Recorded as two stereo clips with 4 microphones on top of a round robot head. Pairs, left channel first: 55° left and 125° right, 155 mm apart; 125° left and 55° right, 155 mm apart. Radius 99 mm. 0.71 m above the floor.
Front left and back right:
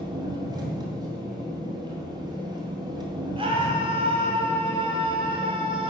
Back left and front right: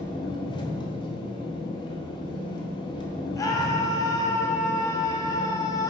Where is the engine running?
Straight behind, 1.2 m.